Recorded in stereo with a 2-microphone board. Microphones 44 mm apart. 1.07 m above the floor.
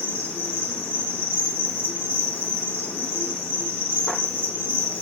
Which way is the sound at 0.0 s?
65° left (ahead or behind).